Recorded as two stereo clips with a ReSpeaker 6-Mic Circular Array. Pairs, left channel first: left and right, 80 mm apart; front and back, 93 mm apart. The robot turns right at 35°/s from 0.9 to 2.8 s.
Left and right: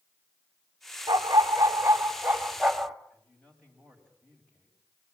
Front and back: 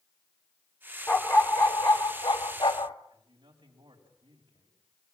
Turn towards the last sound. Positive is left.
turn(degrees=165)